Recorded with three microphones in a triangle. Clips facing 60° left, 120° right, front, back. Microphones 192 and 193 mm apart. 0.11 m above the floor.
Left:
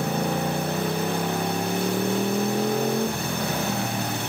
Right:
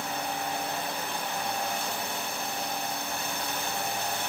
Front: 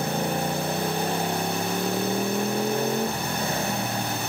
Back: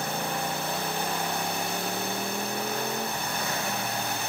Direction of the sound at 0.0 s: 60° left.